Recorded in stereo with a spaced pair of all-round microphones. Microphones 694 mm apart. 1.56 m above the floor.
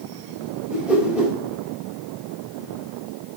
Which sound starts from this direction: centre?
A whoosh, at 0.7 s.